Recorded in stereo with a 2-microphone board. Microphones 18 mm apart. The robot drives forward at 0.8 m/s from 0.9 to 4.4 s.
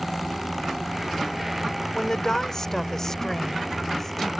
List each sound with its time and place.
1.9 s a woman speaking: 30° left (ahead or behind); by 4.3 s 20° left (ahead or behind)